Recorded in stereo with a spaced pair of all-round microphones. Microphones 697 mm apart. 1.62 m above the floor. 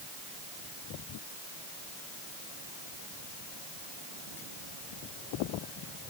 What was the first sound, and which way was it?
Only background noise.